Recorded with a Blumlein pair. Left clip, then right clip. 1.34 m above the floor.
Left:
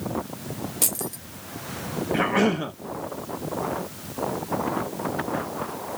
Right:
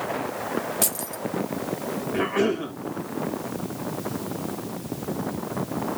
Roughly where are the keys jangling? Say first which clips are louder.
Right 1 dB; ahead.